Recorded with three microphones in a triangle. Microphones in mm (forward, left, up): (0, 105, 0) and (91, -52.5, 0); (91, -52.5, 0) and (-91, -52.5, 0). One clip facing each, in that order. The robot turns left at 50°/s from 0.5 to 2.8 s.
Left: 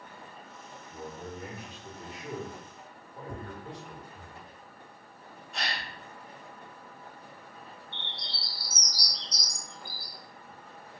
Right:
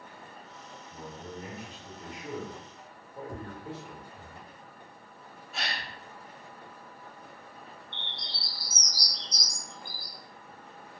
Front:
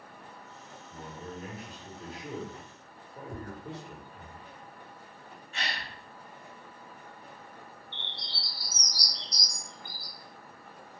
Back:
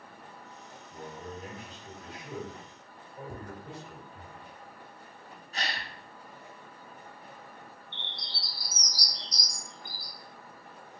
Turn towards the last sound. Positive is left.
turn(degrees=120)